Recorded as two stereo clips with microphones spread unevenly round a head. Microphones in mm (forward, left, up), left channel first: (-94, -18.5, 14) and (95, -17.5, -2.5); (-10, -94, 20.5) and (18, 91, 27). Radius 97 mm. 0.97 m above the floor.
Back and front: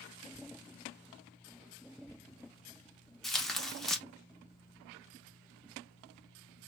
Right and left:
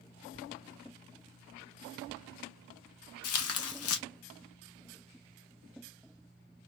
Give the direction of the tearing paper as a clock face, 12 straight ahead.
3 o'clock.